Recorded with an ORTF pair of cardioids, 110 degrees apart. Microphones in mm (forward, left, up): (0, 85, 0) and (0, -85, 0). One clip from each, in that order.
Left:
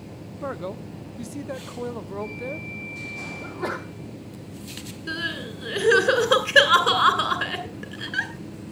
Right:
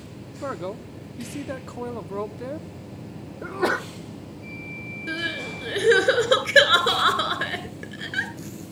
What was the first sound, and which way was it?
A man speaking, 5° right.